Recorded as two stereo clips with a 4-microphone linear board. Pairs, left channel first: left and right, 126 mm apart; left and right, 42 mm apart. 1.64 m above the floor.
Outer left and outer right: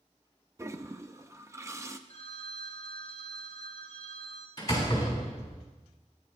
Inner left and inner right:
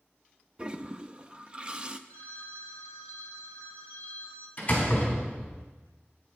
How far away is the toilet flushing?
About 0.5 m.